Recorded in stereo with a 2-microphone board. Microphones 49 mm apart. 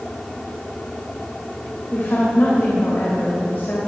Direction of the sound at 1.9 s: 45° left (ahead or behind).